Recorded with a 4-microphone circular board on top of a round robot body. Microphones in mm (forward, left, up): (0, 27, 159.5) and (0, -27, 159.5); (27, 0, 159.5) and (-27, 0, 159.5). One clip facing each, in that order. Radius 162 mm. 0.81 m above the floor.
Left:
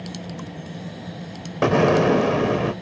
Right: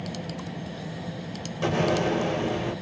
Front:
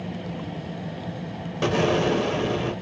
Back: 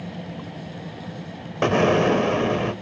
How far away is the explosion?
About 0.9 m.